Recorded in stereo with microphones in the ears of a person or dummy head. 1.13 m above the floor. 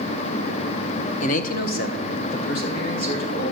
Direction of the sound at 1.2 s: 35° left (ahead or behind).